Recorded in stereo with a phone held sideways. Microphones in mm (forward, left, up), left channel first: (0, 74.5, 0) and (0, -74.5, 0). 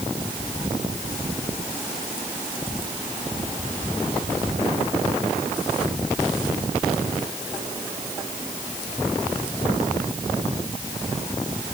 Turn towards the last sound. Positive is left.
No sound to turn to.